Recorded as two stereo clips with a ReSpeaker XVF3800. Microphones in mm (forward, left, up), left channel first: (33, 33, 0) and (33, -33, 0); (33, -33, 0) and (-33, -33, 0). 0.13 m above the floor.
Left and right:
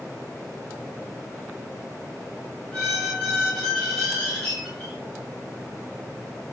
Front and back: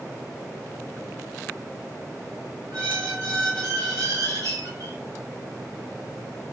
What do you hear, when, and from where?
2.7 s a squeak: 165° left, 4 m